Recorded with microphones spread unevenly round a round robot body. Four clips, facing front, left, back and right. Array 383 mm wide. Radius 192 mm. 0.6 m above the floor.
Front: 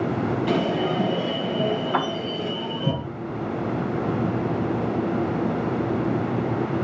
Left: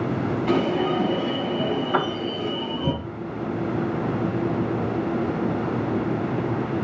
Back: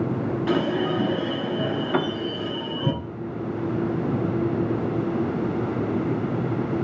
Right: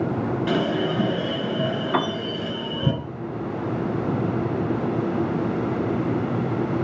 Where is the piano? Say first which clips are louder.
Right 2 dB, even; 165° right, 0.8 m.